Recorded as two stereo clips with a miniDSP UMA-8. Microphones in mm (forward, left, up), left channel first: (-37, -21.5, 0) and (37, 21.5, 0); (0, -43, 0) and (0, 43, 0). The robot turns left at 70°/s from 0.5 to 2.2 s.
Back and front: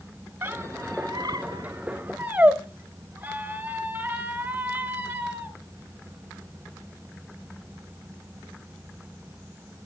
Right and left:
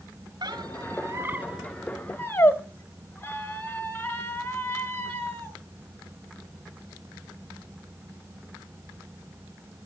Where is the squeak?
90° left, 1.0 m; by 5.5 s 30° right, 1.0 m.